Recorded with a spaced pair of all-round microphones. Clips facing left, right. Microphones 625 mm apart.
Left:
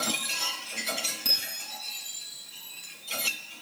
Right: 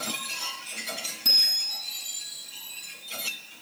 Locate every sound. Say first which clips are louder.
1.2 s a bicycle bell: even; 10° right (ahead or behind), 9.5 m